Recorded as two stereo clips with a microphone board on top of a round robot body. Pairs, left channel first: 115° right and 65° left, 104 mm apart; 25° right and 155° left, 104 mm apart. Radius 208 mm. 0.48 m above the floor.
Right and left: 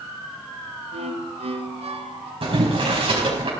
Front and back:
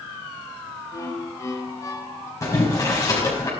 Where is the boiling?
35° left, 5 m.